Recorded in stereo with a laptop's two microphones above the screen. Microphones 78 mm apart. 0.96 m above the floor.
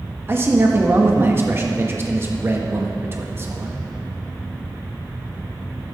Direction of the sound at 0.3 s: 30° right (ahead or behind).